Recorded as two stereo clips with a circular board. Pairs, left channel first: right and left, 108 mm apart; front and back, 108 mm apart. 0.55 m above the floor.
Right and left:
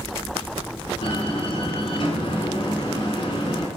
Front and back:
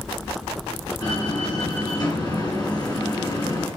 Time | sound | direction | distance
1.0 | a door slam | 50° right | 4 m